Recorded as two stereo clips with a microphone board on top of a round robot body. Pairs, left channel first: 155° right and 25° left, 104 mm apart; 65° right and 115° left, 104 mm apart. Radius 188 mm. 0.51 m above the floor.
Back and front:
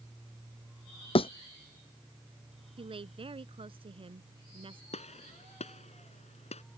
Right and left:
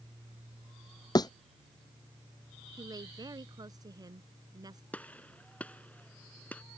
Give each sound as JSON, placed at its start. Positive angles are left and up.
{"t": 1.1, "sound": "a thud", "azimuth_deg": -120}
{"t": 2.8, "sound": "a woman speaking", "azimuth_deg": 60}
{"t": 4.9, "sound": "a gunshot", "azimuth_deg": -145}